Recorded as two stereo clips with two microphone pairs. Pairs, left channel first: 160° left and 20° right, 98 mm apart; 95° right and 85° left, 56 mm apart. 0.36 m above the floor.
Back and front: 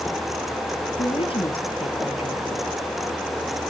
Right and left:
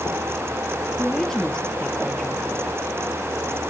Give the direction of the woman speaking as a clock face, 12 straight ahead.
6 o'clock.